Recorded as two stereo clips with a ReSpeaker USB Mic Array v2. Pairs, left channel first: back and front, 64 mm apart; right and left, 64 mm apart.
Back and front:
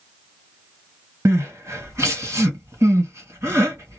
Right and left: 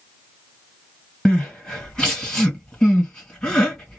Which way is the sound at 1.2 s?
20° right.